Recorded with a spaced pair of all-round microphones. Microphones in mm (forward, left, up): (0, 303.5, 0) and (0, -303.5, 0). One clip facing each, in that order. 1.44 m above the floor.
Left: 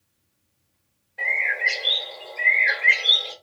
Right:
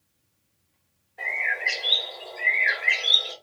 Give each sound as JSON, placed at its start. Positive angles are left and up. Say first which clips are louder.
{"t": 1.2, "sound": "a bird", "louder": "left 2 dB", "side_deg": 15, "distance_m": 1.5}